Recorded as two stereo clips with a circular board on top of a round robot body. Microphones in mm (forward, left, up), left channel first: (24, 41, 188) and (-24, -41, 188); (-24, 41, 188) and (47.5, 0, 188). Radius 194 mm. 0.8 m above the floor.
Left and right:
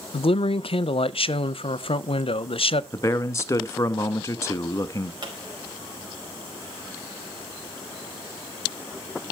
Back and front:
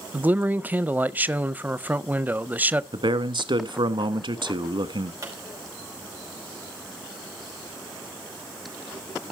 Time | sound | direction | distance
0.1 | a man speaking | 40° left | 0.6 m
2.9 | a man speaking | straight ahead | 1.3 m
5.2 | a pop | 80° right | 5 m